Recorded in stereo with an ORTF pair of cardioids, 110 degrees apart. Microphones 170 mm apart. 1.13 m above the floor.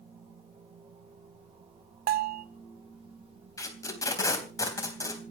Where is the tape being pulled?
20° left, 3.5 m.